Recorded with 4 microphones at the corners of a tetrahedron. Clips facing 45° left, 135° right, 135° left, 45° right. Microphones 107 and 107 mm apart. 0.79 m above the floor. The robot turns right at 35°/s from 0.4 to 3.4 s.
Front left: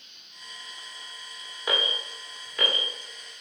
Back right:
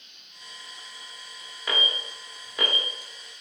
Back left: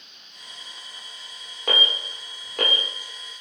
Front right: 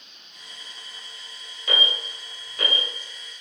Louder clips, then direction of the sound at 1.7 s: Front left 1 dB, back left 1 dB; 120° left.